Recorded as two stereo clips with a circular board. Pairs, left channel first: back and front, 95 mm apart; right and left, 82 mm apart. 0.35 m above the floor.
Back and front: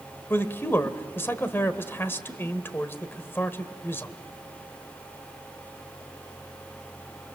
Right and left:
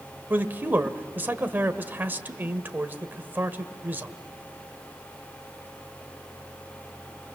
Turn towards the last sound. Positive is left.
turn(degrees=135)